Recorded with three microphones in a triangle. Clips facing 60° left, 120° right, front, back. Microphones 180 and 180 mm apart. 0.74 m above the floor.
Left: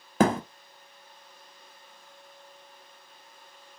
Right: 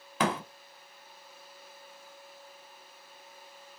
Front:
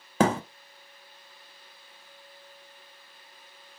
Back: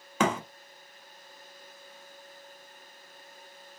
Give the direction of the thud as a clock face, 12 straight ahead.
11 o'clock.